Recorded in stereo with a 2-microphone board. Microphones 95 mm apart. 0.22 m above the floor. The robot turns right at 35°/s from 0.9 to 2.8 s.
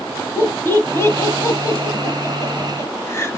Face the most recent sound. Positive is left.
turn(degrees=30)  # may be behind; listen again after turning